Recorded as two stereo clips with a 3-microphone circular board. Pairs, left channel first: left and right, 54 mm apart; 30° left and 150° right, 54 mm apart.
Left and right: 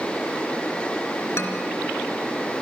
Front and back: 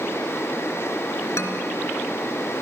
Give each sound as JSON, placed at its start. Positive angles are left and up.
{"t": 1.4, "sound": "a man speaking", "azimuth_deg": 55, "distance_m": 3.0}